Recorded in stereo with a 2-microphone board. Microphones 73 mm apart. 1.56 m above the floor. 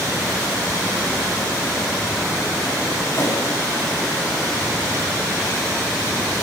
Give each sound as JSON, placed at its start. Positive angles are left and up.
{"t": 3.1, "sound": "a whoosh", "side_deg": 40, "distance_m": 6.5}